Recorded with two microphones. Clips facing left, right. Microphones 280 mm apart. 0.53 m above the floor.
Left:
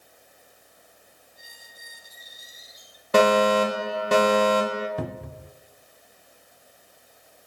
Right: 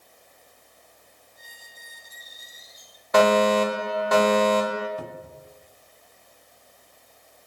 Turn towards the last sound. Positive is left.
turn(degrees=80)